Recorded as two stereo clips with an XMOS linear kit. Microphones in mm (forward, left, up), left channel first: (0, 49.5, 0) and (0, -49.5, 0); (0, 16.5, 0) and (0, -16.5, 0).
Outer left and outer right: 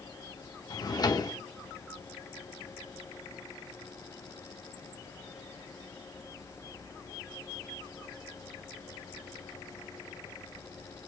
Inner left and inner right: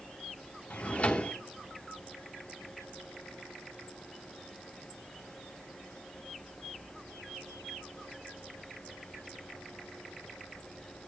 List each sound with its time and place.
0.7 s a drawer: 45° left (ahead or behind), 0.7 m